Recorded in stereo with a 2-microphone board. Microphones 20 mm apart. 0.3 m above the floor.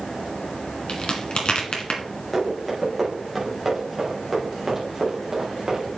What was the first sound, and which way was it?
A crack, 55° left (ahead or behind).